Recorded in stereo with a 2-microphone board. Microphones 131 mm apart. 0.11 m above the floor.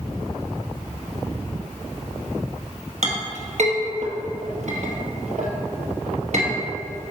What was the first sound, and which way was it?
A clink, 60° right (ahead or behind).